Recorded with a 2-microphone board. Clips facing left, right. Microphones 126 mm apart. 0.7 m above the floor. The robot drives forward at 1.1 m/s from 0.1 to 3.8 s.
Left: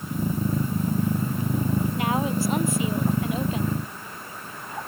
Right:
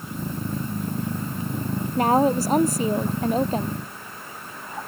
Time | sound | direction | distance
2.0 | a woman speaking | 40° right (ahead or behind) | ?